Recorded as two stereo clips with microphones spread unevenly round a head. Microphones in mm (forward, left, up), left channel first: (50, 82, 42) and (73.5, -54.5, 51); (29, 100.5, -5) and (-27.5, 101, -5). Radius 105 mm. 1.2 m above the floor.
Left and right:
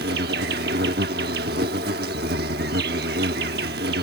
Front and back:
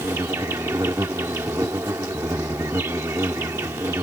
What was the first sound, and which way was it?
An insect, 120° right.